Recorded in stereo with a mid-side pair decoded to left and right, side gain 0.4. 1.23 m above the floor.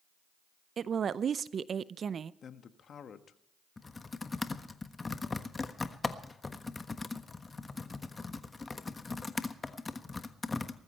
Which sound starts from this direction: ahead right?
A woman speaking, at 0.8 s.